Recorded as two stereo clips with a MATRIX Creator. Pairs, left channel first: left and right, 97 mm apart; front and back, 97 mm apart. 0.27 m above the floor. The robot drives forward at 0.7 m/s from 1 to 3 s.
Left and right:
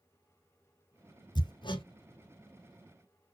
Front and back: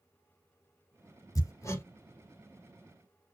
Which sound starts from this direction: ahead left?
Hammering, at 1.4 s.